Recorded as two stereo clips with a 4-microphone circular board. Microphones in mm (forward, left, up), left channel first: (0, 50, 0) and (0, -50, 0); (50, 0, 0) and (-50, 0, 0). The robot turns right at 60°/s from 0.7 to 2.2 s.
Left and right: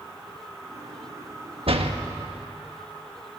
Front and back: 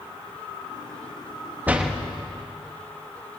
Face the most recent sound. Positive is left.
turn(degrees=-75)